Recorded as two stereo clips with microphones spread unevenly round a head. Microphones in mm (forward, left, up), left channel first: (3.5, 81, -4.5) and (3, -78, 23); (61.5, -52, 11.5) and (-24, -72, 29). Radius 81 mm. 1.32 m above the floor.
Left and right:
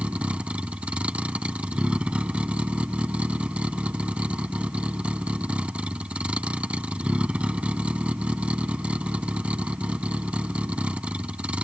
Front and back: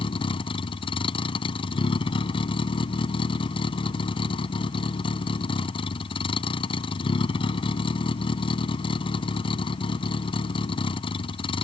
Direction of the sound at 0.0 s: 10° right.